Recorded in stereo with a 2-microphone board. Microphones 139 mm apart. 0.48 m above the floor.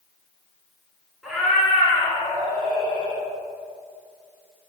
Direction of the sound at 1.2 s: Centre (ahead or behind).